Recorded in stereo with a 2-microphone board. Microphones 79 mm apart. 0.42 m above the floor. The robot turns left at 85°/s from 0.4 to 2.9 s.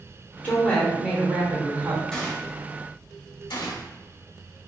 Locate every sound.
0.4 s a woman speaking: 45° left, 0.9 m; by 2.0 s 90° right, 0.9 m
2.1 s a gunshot: 10° left (ahead or behind), 0.9 m; by 3.9 s 65° left (ahead or behind), 0.9 m